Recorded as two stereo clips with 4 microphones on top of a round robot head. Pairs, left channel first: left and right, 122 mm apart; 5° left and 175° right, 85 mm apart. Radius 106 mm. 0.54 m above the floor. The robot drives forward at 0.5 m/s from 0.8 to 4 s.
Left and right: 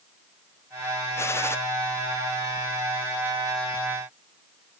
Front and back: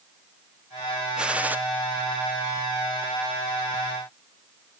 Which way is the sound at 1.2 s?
120° left.